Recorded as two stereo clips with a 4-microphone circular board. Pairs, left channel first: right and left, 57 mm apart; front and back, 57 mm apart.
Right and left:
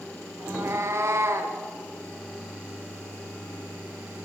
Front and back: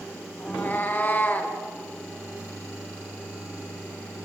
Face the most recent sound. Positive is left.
turn(degrees=60)